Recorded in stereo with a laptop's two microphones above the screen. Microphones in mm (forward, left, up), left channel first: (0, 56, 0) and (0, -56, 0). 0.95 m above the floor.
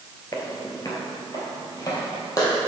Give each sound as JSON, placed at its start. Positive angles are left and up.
{"t": 0.3, "sound": "footsteps", "side_deg": 35, "distance_m": 1.1}